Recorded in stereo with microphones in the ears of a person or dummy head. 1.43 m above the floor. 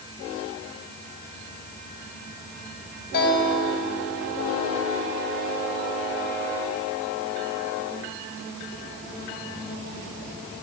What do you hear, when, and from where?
3.1 s a guitar: 60° left (ahead or behind), 6.5 m